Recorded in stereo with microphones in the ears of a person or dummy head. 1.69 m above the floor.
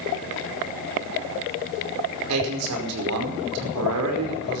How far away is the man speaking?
About 5 m.